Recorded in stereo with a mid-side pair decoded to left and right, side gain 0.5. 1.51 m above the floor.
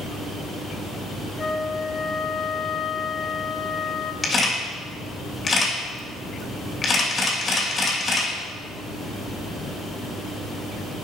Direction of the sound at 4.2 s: 30° left.